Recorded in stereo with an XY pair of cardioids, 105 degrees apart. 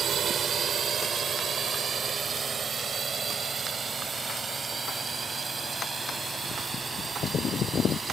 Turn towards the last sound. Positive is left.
turn(degrees=-25)